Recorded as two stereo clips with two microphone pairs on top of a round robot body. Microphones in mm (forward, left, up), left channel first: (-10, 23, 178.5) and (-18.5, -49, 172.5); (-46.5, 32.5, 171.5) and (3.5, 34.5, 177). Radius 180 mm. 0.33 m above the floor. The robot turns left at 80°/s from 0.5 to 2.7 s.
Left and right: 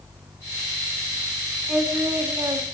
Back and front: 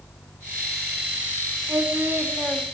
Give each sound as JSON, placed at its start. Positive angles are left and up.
{"t": 1.7, "sound": "singing", "azimuth_deg": -20, "distance_m": 2.0}